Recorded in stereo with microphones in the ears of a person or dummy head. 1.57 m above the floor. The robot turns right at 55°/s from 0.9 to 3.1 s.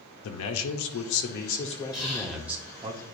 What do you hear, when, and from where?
0.2 s a man speaking: 100° left, 0.8 m; by 2.9 s 145° right, 0.8 m
1.9 s whispering: 20° left (ahead or behind), 2 m; by 2.4 s 45° left (ahead or behind), 2 m